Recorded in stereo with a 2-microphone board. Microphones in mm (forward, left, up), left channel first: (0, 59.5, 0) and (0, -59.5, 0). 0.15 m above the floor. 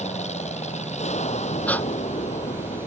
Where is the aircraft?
75° left (ahead or behind).